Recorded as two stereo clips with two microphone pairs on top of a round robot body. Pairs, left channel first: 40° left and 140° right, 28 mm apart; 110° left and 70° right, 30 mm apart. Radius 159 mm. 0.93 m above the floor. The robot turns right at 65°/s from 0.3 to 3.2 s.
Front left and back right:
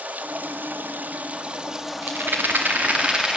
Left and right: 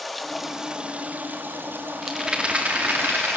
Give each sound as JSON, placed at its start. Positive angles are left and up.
{"t": 0.0, "sound": "running water", "azimuth_deg": -170, "distance_m": 1.2}
{"t": 2.0, "sound": "a rattle", "azimuth_deg": -150, "distance_m": 0.8}